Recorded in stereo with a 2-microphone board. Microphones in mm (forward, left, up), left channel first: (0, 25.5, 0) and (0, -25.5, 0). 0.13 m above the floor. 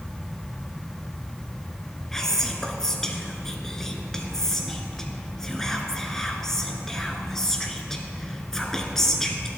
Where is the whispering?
10° left (ahead or behind), 1.4 m.